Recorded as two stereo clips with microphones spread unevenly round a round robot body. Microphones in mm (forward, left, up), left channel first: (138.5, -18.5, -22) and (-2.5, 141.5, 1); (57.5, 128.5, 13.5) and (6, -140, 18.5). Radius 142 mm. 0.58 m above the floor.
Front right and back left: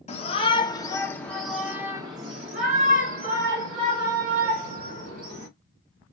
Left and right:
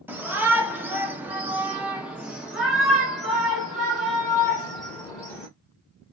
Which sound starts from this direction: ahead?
A shout, at 0.1 s.